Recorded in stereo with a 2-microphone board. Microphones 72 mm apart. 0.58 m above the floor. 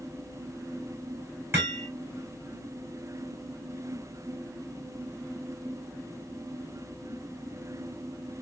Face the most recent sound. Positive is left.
turn(degrees=-30)  # may be behind; listen again after turning